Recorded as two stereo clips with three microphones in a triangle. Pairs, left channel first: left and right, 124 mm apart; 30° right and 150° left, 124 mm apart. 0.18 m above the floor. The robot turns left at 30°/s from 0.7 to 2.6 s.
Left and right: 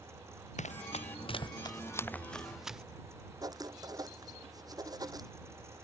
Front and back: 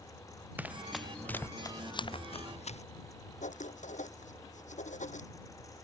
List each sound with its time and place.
0.6 s running footsteps: 75° left; by 2.8 s 5° right
3.4 s writing: 30° right